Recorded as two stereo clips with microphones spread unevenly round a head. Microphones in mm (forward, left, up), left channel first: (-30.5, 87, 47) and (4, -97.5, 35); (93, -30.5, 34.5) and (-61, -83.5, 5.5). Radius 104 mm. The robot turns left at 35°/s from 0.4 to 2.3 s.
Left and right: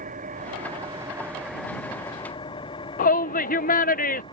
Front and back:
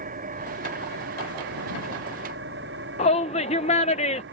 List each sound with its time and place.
0.0 s an engine running: 130° right; by 4.3 s 165° left
3.0 s a shout: 70° left